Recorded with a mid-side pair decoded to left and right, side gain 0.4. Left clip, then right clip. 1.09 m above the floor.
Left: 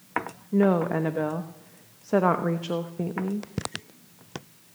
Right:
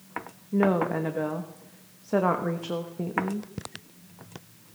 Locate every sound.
0.5 s a woman speaking: 25° left, 0.9 m